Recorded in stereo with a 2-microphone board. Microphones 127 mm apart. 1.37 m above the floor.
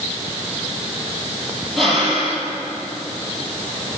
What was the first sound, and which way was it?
Breathing, centre (ahead or behind).